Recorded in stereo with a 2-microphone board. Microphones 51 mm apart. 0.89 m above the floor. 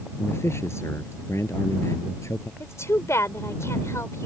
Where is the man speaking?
60° left (ahead or behind); by 2.5 s 70° left (ahead or behind).